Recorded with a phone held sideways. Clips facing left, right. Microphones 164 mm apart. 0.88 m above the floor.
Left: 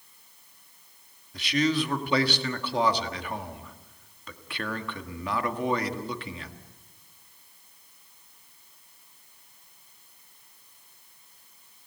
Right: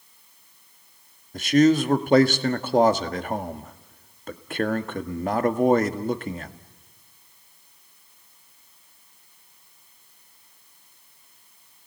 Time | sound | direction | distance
1.3 | a man speaking | 45° right (ahead or behind) | 1.6 m